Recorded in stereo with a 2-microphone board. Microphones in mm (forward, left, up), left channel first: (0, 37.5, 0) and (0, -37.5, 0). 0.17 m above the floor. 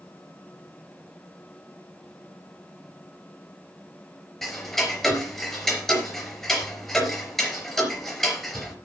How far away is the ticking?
About 4 m.